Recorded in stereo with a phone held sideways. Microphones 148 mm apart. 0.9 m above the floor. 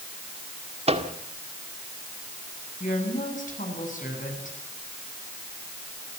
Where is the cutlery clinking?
No cutlery clinking in this recording.